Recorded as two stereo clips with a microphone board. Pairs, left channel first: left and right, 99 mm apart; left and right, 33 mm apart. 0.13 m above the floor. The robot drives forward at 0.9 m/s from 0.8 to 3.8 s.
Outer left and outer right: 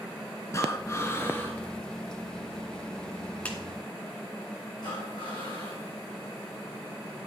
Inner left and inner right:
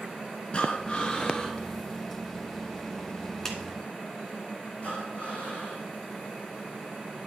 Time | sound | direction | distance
0.5 | breathing | 30° left (ahead or behind) | 1.2 m
3.5 | a clap | 15° left (ahead or behind) | 1.5 m
4.8 | breathing | 45° left (ahead or behind) | 4 m